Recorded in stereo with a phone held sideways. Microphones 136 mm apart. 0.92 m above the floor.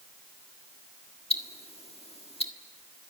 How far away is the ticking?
About 1.5 m.